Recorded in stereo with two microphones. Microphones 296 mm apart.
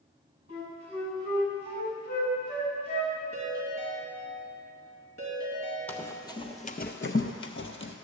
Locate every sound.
0.5 s a flute: 35° left (ahead or behind), 2.5 m
3.3 s a ringtone: 85° left, 2.5 m
5.9 s running footsteps: 5° left (ahead or behind), 0.9 m; by 8.0 s 45° left (ahead or behind), 0.8 m